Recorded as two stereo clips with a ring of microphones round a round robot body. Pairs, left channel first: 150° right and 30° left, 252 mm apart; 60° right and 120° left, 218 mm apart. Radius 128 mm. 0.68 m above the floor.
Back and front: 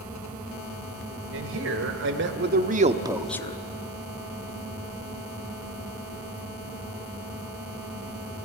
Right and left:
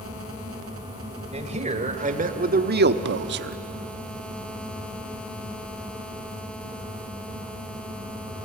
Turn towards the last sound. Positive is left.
turn(degrees=150)